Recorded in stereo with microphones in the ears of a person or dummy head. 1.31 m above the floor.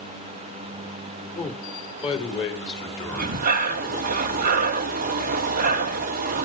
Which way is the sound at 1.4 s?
35° left (ahead or behind).